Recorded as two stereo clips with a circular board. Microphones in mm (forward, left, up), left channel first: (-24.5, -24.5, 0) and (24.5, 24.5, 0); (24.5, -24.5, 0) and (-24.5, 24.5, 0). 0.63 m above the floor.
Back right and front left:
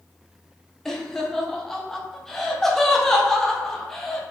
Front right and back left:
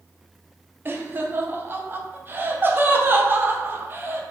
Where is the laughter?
145° left, 0.6 m.